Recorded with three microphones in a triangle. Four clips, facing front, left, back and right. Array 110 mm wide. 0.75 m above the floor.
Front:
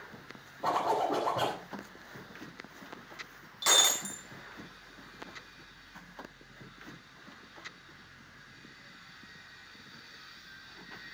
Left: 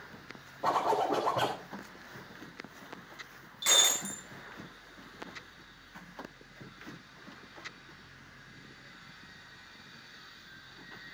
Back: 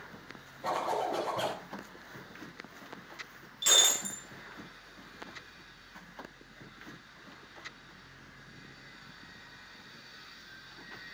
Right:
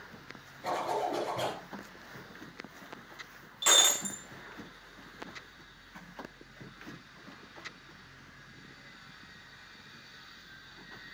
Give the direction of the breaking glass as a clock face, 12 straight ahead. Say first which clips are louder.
Right 3 dB, front 3 dB; 1 o'clock.